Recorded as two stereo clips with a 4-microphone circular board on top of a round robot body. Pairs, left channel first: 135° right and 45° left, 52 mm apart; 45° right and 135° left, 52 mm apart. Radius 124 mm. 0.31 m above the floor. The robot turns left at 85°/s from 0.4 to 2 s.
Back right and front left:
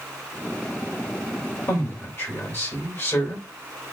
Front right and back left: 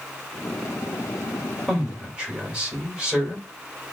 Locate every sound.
1.7 s a man speaking: 130° right, 2 m; by 3.5 s 160° right, 2 m